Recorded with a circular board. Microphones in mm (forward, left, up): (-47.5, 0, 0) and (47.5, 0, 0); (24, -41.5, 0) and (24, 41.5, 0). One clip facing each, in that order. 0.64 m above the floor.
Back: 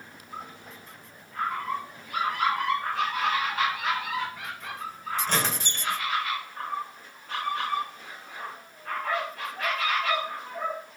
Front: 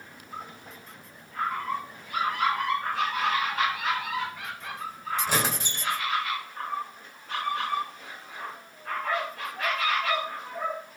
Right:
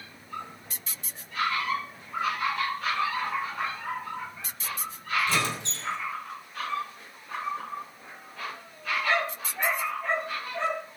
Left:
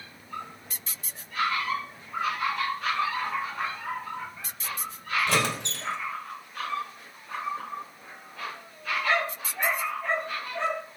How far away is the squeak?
About 1.4 m.